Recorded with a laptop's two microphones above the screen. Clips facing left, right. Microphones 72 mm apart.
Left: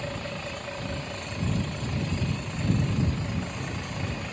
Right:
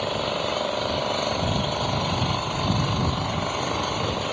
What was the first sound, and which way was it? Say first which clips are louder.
An engine running: right 9 dB; 90° right.